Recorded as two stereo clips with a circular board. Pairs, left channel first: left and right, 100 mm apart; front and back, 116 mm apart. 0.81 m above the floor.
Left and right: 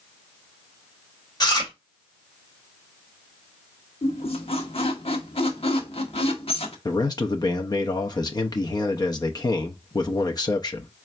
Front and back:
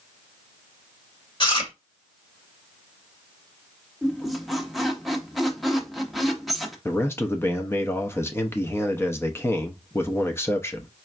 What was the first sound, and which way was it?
Chewing, 45° left.